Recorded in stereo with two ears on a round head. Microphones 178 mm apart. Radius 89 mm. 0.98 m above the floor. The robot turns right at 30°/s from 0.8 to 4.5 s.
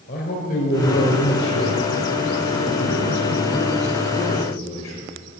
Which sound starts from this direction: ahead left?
A man speaking, at 0.1 s.